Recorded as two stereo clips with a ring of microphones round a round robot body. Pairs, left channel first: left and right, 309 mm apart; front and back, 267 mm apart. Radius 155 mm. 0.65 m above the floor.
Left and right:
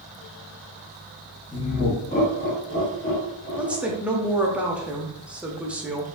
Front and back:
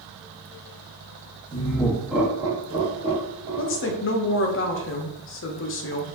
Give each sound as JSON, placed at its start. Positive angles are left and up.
{"t": 1.5, "sound": "laughter", "azimuth_deg": 45, "distance_m": 0.9}
{"t": 3.6, "sound": "a woman speaking", "azimuth_deg": -5, "distance_m": 0.6}